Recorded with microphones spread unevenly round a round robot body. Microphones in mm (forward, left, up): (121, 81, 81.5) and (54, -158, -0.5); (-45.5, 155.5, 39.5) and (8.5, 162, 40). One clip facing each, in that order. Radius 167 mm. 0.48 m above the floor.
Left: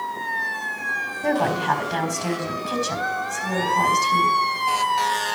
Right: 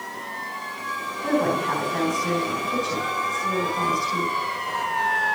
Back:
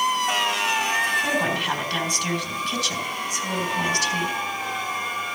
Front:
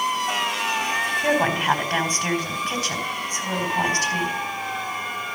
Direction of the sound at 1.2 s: 65° left.